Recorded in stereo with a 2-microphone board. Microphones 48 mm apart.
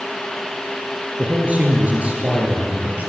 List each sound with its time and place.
1.2 s a man speaking: 30° right (ahead or behind), 4 m